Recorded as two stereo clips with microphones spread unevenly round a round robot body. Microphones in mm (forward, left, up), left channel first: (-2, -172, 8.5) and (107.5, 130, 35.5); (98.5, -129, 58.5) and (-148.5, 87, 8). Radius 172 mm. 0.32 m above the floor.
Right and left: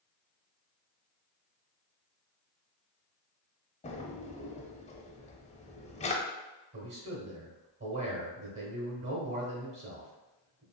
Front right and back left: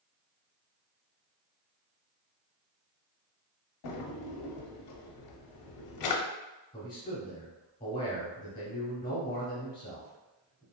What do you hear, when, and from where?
3.8 s a drawer: 50° right, 0.6 m
6.7 s a man speaking: 40° left, 1.2 m